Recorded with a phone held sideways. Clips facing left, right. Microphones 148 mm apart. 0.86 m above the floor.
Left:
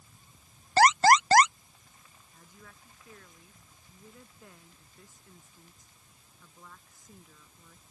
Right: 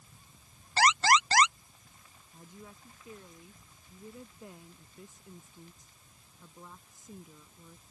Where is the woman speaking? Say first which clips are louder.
Right 5 dB; 25° right (ahead or behind).